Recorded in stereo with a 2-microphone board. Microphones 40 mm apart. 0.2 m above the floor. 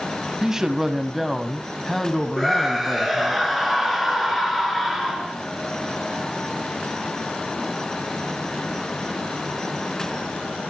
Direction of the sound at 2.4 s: 5° left (ahead or behind).